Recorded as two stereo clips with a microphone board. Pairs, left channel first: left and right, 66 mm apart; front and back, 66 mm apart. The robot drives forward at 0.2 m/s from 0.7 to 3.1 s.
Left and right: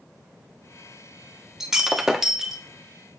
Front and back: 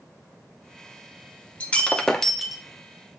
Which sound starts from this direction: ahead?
Breaking glass, at 1.6 s.